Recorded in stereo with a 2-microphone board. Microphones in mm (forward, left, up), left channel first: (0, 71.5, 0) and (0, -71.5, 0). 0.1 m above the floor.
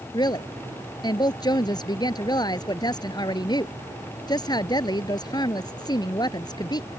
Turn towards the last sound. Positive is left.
turn(degrees=30)  # may be behind; listen again after turning